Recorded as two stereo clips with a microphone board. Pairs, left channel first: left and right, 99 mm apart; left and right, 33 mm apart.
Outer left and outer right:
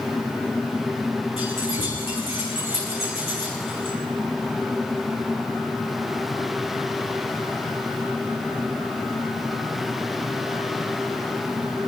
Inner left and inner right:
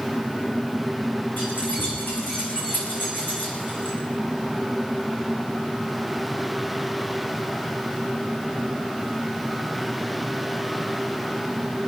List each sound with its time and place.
1.4 s keys jangling: 75° left (ahead or behind), 9 m